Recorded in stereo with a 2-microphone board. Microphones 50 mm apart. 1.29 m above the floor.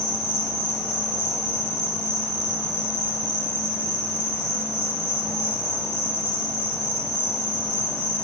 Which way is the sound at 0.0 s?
10° left (ahead or behind).